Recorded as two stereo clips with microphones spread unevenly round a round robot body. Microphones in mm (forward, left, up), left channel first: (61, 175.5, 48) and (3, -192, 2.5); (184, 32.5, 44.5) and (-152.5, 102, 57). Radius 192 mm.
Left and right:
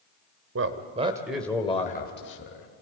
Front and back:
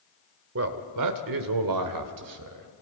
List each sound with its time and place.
0.6 s a man speaking: 145° right, 1.8 m; by 2.7 s 135° left, 2.5 m